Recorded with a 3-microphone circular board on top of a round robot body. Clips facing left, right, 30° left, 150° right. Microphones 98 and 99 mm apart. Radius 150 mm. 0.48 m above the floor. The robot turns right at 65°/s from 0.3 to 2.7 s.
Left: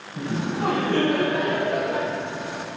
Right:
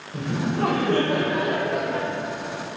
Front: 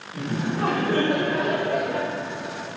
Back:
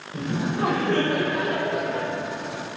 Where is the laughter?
95° right, 3 m; by 2.1 s 25° left, 3 m.